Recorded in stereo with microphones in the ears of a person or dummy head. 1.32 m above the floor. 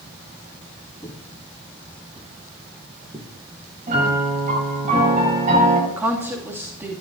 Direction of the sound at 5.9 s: 10° right (ahead or behind).